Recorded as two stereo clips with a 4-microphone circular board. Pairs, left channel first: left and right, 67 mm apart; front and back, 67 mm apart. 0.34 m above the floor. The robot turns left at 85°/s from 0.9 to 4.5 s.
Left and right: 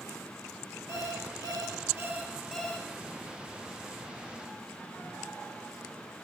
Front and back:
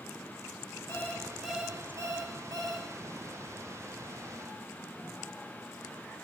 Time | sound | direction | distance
0.9 | an alarm clock | 45° right | 3 m